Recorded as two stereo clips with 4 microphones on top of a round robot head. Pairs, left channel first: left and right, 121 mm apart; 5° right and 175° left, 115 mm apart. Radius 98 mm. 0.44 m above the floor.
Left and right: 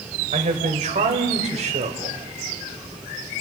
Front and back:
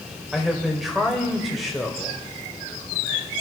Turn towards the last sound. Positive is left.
turn(degrees=-95)